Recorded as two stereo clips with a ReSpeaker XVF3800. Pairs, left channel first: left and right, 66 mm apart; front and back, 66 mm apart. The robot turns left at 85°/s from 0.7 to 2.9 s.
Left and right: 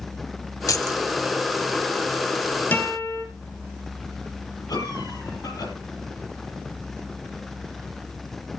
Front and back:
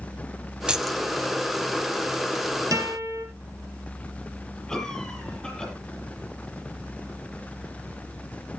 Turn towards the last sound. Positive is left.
turn(degrees=80)